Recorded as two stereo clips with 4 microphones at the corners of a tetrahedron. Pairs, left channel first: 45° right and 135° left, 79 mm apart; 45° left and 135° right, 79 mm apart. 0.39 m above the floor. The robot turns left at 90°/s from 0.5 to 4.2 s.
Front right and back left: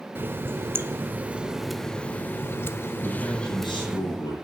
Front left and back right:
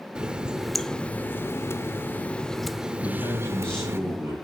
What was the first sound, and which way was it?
A running tap, 155° left.